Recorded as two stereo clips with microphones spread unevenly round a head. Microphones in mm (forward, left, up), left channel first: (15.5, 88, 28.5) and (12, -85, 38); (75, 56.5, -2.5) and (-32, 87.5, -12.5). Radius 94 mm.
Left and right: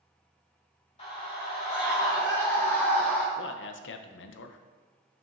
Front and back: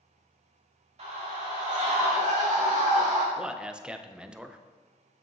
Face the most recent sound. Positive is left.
turn(degrees=85)